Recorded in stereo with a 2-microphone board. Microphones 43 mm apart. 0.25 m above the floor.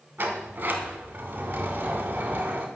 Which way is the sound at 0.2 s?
55° right (ahead or behind).